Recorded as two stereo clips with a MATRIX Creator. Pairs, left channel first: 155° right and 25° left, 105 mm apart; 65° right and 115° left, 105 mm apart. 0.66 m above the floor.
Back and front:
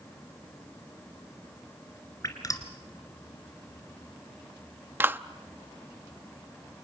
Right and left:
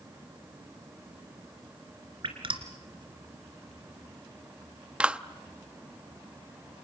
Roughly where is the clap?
Ahead left.